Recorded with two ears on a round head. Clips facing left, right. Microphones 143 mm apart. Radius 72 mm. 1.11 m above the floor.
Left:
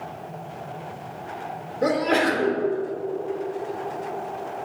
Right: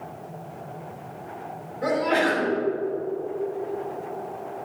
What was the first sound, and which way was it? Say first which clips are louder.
A sneeze: left 1 dB; 50° left (ahead or behind).